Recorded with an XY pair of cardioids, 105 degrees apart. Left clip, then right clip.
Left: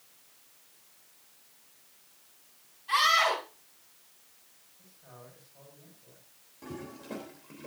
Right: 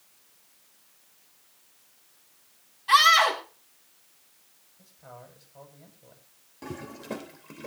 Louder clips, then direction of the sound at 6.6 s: Right 4 dB; 50° right.